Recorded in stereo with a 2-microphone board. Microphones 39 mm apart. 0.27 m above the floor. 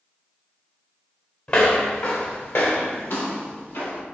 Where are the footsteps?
40° left (ahead or behind), 0.9 m; by 4.0 s 80° left, 2 m.